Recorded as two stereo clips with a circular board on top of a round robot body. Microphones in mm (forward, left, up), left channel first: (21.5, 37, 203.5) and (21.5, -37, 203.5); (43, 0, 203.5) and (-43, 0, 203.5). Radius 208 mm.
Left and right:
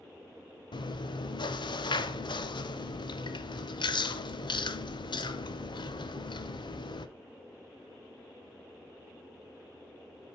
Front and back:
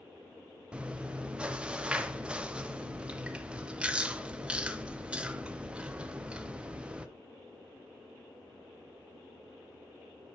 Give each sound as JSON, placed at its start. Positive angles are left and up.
{"t": 0.7, "sound": "chewing", "azimuth_deg": 100, "distance_m": 0.8}